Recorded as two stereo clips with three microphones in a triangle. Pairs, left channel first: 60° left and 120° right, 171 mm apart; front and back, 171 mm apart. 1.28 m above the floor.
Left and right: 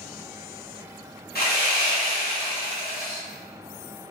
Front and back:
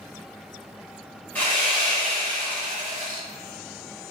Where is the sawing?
80° left, 2.0 m.